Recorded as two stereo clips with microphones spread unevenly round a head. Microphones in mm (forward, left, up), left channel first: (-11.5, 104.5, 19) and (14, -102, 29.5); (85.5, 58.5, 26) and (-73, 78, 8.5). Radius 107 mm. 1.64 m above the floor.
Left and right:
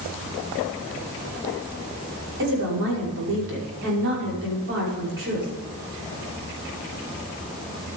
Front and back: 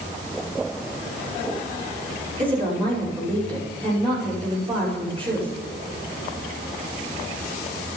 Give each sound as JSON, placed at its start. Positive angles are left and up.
{"t": 2.4, "sound": "a woman speaking", "azimuth_deg": -115, "distance_m": 5.5}